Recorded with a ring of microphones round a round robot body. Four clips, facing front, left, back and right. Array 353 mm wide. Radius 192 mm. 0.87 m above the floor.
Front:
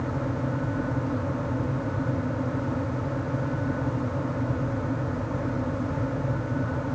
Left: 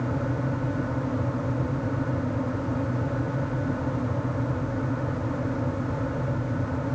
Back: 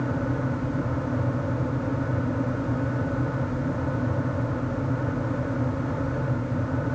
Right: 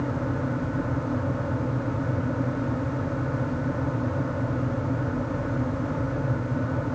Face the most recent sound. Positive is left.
No sound to turn to.